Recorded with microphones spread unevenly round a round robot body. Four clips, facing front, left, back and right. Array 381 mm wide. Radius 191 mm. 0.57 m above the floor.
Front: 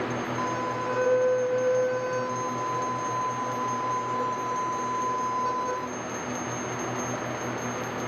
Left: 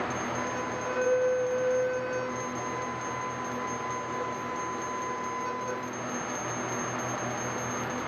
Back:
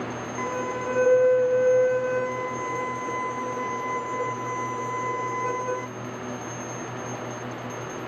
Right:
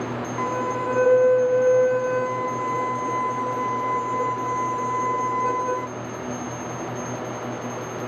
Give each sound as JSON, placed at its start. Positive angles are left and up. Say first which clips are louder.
{"t": 0.4, "sound": "a violin", "louder": "right 7 dB, back 3 dB", "azimuth_deg": -85}